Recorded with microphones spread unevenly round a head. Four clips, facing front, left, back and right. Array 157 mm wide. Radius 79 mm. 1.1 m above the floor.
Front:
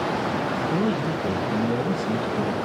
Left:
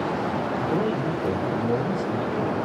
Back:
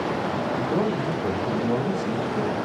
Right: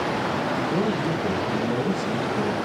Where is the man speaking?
Straight behind, 5 m.